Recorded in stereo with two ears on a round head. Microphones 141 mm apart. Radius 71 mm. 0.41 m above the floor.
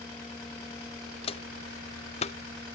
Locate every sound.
1.2 s footsteps: 40° left (ahead or behind); by 2.4 s 45° left (ahead or behind)